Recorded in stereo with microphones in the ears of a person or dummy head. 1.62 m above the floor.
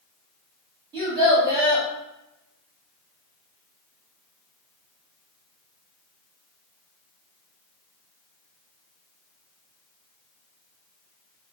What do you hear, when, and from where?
0.9 s a child speaking: 20° right (ahead or behind), 1.2 m